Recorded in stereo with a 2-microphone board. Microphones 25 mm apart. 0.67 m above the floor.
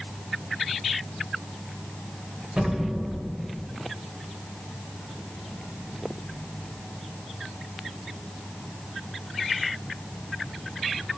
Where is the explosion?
50° right (ahead or behind), 3.5 m.